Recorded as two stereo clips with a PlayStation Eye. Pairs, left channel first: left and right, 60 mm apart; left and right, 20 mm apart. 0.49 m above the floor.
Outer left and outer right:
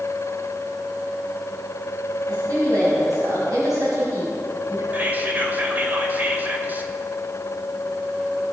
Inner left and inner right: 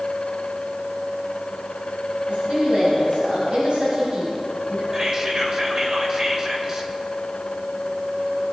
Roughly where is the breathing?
I don't hear breathing.